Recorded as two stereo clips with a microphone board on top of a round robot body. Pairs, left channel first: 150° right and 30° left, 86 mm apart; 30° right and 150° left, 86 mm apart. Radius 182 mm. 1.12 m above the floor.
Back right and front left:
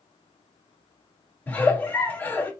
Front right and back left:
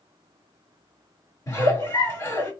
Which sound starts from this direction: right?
A giggle, at 1.5 s.